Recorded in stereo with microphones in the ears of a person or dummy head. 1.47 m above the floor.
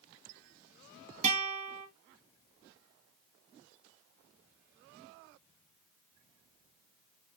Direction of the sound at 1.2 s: 35° right (ahead or behind).